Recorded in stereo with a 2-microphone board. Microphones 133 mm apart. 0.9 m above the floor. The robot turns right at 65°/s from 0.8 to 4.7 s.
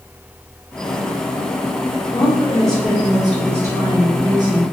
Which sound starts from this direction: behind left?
A woman speaking, at 2.1 s.